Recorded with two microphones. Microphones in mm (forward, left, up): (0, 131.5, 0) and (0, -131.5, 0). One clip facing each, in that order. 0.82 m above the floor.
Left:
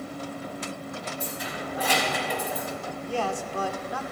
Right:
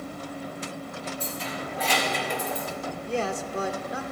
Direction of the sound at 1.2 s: 10° left (ahead or behind).